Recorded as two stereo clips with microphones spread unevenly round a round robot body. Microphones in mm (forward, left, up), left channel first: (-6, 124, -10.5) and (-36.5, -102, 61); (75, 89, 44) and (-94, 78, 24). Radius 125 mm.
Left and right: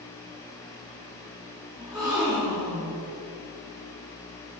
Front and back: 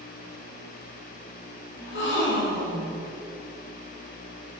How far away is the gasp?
About 4 m.